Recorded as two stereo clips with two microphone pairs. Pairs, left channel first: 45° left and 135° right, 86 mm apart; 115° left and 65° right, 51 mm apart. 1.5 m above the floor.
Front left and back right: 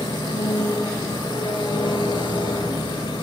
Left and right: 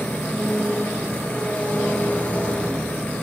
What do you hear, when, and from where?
0.0 s an engine running: 55° left, 9 m